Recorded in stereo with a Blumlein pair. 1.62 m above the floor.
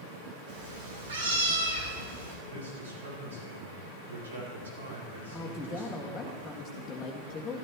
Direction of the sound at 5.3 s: 15° left.